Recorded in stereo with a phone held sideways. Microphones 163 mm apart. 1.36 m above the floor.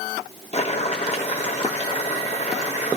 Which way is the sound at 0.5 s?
45° left (ahead or behind).